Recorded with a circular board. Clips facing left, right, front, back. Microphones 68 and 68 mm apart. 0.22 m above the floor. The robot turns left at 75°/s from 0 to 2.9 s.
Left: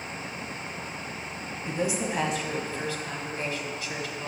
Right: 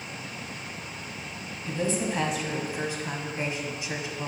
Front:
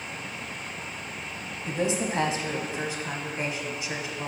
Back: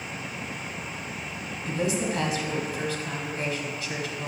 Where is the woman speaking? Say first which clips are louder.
Right 1 dB, even; 45° left, 1.0 m; by 4.3 s 45° right, 1.0 m.